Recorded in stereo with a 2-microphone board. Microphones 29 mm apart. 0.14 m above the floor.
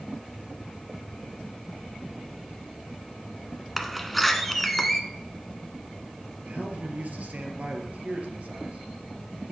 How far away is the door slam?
About 1.1 m.